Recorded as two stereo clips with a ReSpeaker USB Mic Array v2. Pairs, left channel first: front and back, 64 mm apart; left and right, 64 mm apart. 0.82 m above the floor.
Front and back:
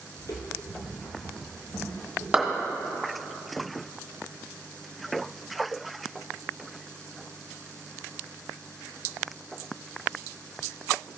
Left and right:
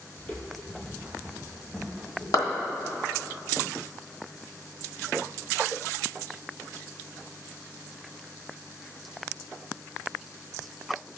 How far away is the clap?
About 1.5 m.